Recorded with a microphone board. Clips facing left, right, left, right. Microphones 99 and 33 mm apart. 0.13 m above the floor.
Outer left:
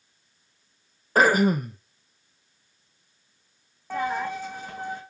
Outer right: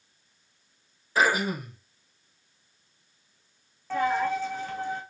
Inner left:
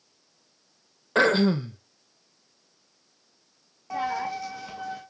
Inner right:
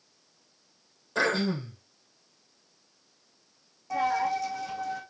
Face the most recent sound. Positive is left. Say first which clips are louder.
# outer right 2 dB, inner right 2 dB
turn(degrees=15)  # may be behind; listen again after turning